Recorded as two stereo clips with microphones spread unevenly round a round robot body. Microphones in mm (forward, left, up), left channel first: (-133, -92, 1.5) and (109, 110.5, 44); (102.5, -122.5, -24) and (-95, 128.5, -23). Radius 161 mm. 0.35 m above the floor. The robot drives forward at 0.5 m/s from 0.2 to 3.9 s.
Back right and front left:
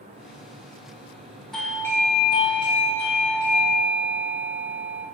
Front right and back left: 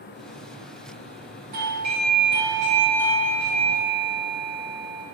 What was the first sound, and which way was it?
A doorbell, 150° left.